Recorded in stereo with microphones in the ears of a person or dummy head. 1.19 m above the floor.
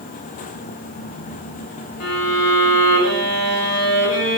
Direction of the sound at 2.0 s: 85° left.